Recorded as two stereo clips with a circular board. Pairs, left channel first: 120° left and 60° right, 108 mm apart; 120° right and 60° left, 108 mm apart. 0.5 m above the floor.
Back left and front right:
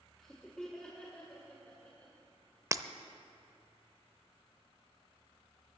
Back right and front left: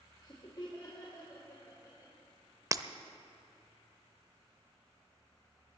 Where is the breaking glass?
Straight ahead, 0.5 m.